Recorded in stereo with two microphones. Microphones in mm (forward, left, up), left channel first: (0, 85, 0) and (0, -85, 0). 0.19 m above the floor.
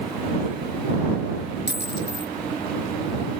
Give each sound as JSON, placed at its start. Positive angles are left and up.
{"t": 1.7, "sound": "a dropped coin", "side_deg": 80}